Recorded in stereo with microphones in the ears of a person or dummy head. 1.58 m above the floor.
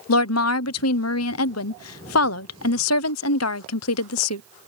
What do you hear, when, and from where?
0.1 s a woman speaking: 80° left